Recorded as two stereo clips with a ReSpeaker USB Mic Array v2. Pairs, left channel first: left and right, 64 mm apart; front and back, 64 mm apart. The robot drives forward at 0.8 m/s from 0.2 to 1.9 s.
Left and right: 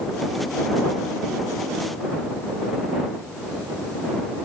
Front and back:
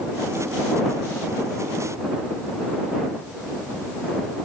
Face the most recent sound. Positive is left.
No sound to turn to.